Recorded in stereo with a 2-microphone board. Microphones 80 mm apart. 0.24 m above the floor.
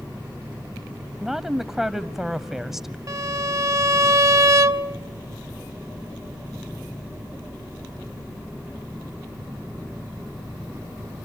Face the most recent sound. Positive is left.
turn(degrees=-45)  # may be behind; listen again after turning